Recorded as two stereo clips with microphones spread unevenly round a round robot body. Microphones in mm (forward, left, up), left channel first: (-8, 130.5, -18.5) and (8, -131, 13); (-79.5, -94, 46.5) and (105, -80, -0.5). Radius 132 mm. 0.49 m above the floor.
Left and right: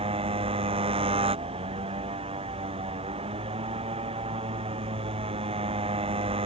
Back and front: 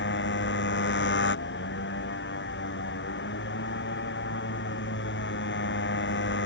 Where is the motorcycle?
155° right.